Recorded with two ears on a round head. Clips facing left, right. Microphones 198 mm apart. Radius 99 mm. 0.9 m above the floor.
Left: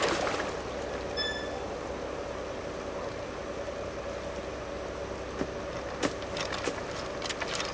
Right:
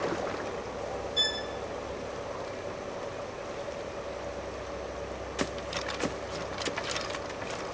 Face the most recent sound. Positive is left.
turn(degrees=-45)  # may be behind; listen again after turning